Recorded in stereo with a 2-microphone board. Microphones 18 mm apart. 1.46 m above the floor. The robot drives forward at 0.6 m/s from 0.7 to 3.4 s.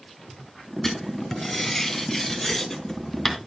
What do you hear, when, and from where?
0.8 s writing: 20° left (ahead or behind), 1.7 m; by 3.4 s 10° left (ahead or behind), 3 m